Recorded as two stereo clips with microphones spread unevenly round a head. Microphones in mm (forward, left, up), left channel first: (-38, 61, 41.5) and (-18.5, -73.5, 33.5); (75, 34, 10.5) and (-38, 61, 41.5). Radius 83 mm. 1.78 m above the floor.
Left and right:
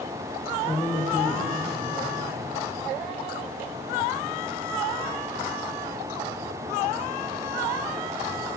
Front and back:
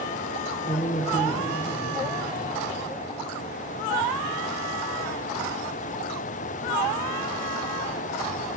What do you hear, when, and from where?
0.7 s a man speaking: 40° left, 1.6 m; by 2.3 s 5° right, 1.5 m